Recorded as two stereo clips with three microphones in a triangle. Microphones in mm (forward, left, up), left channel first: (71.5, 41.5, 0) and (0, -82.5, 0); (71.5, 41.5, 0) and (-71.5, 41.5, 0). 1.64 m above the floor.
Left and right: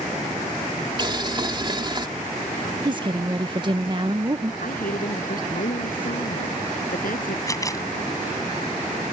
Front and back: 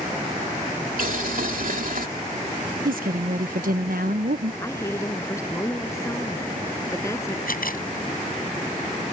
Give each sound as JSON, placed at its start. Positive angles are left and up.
{"t": 1.0, "sound": "boiling", "azimuth_deg": -175}
{"t": 2.9, "sound": "a woman speaking", "azimuth_deg": -175}
{"t": 4.6, "sound": "a woman speaking", "azimuth_deg": 70}
{"t": 7.5, "sound": "a camera shutter", "azimuth_deg": -5}